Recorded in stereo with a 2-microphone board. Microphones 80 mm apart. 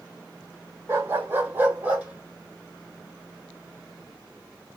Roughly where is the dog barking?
Right.